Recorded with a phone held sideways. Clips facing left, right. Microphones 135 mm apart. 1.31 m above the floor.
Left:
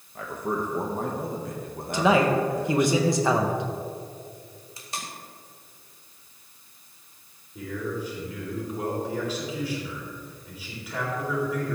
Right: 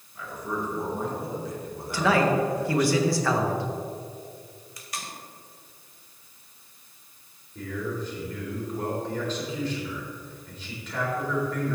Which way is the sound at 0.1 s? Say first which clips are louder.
Left 3 dB; 55° left (ahead or behind).